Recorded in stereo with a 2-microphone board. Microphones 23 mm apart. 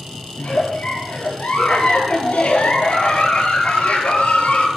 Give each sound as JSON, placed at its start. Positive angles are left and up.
{"t": 0.4, "sound": "a giggle", "side_deg": 75, "distance_m": 4.5}